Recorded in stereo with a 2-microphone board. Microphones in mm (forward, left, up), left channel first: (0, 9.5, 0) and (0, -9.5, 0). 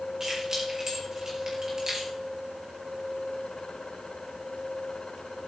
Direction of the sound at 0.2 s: 35° right (ahead or behind).